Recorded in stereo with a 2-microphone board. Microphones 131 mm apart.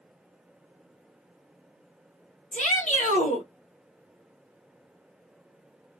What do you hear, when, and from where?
2.5 s a shout: 70° left (ahead or behind), 1.3 m